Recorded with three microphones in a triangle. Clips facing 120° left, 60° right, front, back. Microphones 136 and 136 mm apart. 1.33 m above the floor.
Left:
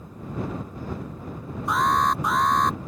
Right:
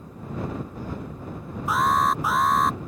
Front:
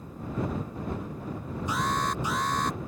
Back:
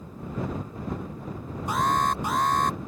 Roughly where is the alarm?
Behind right.